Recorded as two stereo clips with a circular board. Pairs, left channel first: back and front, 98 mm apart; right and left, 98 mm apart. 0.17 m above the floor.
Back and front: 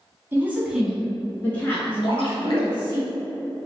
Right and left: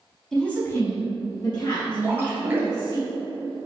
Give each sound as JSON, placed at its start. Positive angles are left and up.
{"t": 0.3, "sound": "a woman speaking", "azimuth_deg": -10, "distance_m": 1.0}
{"t": 2.0, "sound": "a splash", "azimuth_deg": 155, "distance_m": 1.2}